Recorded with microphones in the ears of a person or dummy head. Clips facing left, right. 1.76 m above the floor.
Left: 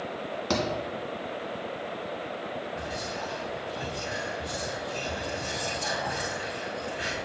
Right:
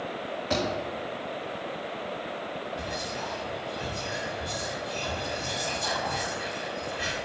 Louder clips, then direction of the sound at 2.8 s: Even; 10° left (ahead or behind).